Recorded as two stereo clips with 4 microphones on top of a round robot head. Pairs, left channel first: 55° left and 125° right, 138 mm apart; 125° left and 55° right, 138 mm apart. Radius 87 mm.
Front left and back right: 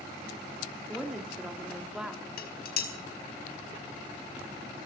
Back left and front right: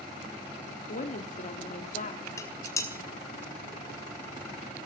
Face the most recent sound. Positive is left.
turn(degrees=55)